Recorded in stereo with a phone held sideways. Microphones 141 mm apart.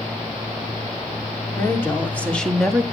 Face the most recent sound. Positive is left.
turn(degrees=-5)  # may be behind; listen again after turning